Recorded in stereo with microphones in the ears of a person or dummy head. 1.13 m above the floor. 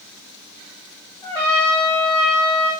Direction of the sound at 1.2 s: 10° left (ahead or behind).